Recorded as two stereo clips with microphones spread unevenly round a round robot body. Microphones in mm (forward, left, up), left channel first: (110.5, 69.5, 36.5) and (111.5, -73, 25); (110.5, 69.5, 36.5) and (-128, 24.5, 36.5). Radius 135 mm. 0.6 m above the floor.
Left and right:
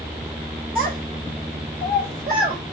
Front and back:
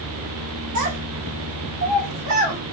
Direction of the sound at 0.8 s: 170° right.